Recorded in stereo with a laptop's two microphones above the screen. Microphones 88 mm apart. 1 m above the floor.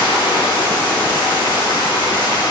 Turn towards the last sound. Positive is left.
turn(degrees=65)  # may be behind; listen again after turning